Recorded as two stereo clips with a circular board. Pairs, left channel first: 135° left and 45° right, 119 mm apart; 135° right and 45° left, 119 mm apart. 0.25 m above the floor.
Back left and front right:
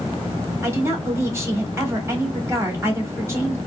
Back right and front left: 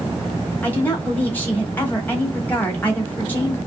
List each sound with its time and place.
0.6 s a woman speaking: 80° right, 1.2 m